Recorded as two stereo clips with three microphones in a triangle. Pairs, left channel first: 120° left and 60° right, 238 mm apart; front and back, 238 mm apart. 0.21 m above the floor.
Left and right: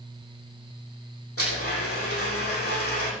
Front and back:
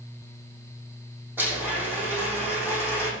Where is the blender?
100° left, 7 m.